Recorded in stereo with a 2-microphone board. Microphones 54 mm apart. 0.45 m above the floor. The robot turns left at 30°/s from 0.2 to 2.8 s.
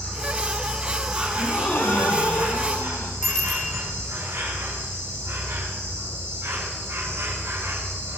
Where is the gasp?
145° left, 3.5 m; by 3.1 s 100° left, 3.5 m.